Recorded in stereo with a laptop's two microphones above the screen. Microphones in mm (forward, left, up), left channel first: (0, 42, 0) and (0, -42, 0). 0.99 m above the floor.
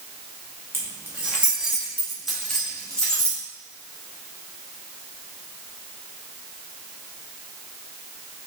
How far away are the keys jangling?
About 1.1 m.